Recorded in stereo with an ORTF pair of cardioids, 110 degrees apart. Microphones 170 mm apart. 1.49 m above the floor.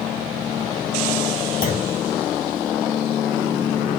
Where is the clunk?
55° left, 1.0 m.